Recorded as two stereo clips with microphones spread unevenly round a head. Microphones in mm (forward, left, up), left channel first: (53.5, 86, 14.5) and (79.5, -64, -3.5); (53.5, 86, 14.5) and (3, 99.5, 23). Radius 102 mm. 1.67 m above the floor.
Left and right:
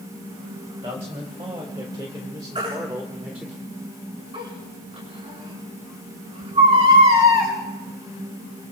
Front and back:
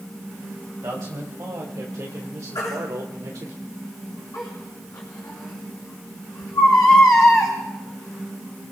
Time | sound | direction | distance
0.8 | a man speaking | 145° right | 3 m
2.5 | a baby crying | 30° right | 6.5 m